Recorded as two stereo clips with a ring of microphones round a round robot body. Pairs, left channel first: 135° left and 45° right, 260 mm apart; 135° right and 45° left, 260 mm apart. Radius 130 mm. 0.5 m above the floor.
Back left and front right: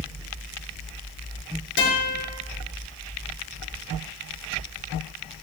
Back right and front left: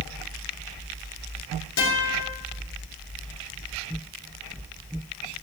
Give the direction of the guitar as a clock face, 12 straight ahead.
6 o'clock.